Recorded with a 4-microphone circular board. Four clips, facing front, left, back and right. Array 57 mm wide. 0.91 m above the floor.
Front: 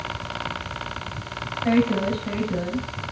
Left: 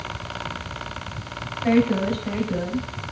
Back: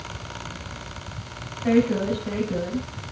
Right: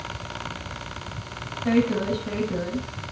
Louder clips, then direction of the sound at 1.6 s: Left 2 dB, even; 100° left.